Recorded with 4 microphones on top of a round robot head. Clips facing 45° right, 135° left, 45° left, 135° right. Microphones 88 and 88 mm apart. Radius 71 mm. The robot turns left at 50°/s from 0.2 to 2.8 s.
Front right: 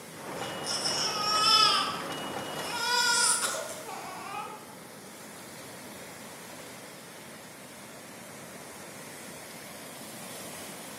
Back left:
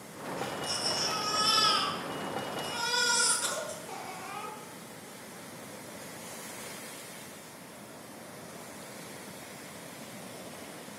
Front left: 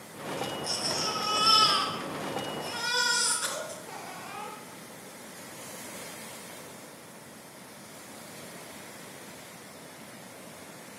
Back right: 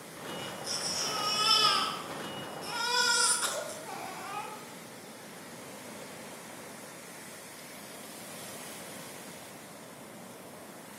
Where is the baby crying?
40° left, 4.5 m; by 4.5 s 85° right, 4.5 m.